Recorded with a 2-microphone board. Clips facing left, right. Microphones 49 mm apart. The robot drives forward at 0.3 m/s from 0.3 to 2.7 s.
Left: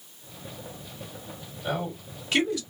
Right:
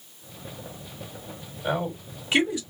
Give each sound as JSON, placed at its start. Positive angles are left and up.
{"t": 1.6, "sound": "a man speaking", "side_deg": -20, "distance_m": 1.8}